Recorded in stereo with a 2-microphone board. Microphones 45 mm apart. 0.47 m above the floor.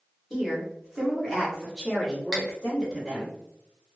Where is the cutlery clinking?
15° right (ahead or behind), 0.5 m.